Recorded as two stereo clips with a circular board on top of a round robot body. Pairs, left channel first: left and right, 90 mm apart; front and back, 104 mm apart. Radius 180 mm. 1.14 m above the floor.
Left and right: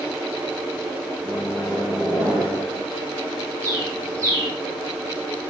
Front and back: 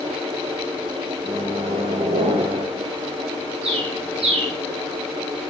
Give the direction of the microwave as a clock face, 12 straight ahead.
6 o'clock.